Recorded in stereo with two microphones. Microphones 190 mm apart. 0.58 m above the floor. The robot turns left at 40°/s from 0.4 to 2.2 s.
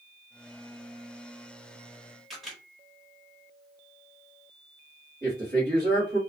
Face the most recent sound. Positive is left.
turn(degrees=-50)  # may be behind; listen again after turning